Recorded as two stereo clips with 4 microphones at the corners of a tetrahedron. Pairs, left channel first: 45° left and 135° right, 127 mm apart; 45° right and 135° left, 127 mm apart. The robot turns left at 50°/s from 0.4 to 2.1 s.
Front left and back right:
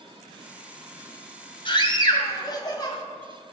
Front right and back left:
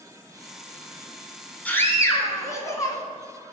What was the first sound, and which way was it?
A scream, 25° left.